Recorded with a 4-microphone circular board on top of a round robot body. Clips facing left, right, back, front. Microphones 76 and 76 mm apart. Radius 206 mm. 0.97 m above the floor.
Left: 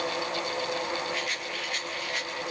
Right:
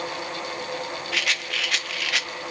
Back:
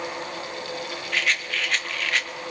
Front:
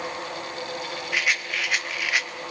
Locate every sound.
1.1 s a rattle: 80° right, 1.0 m